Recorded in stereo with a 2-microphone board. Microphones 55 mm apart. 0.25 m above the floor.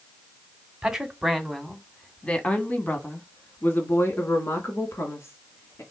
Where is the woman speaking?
10° right (ahead or behind), 1.5 m; by 5.8 s 60° left (ahead or behind), 3 m.